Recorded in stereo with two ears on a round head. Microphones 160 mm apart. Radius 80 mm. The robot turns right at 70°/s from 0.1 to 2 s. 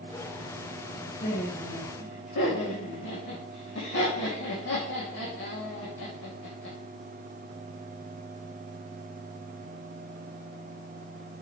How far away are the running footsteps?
No running footsteps in this recording.